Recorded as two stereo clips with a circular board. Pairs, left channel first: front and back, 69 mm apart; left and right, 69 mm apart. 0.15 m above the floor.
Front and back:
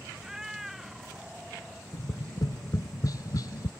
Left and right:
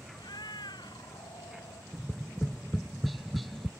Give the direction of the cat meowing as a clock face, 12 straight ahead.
9 o'clock.